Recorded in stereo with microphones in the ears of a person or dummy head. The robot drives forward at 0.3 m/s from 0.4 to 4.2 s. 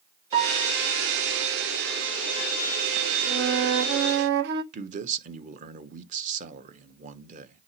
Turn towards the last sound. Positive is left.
turn(degrees=-45)  # may be behind; listen again after turning